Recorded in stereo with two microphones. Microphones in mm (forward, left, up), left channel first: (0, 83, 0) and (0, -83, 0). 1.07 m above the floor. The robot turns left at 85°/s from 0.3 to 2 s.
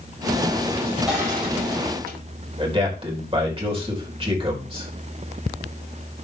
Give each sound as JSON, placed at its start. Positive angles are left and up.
{"t": 1.1, "sound": "crushing", "azimuth_deg": 0, "distance_m": 7.0}
{"t": 2.6, "sound": "a man speaking", "side_deg": -35, "distance_m": 4.0}